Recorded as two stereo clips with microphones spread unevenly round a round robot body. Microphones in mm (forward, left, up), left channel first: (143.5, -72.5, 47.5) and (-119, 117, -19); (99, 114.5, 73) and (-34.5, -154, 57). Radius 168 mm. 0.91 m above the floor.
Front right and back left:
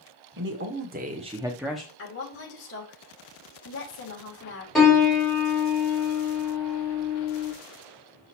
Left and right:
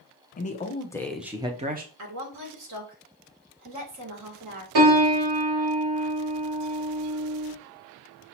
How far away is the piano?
About 3.5 m.